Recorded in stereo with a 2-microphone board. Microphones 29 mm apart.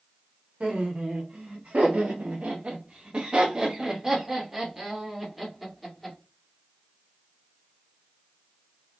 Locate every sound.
0.6 s laughter: 60° right (ahead or behind), 1.4 m; by 6.2 s 5° left (ahead or behind), 2 m